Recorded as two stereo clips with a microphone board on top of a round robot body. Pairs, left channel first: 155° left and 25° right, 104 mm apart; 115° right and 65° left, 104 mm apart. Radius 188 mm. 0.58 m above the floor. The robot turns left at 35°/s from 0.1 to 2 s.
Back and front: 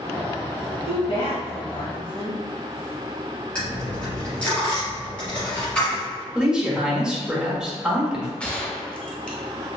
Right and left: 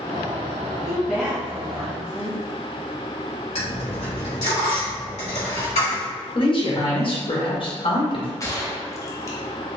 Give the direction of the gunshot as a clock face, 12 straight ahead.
4 o'clock.